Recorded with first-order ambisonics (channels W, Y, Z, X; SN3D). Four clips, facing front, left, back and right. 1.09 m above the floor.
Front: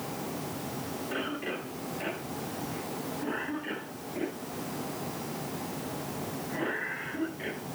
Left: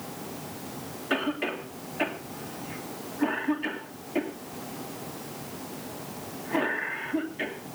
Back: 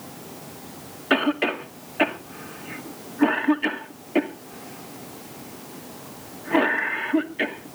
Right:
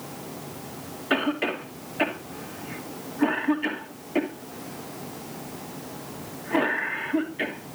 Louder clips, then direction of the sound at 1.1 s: Right 4 dB, back 14 dB; 165° right.